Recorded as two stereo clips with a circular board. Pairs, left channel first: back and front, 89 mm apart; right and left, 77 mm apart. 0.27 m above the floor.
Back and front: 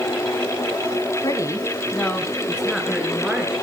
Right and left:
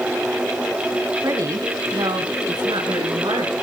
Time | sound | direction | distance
1.2 | a woman speaking | 140° left | 2.0 m